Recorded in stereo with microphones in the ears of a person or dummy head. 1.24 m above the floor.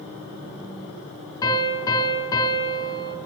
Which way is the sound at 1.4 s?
20° left (ahead or behind).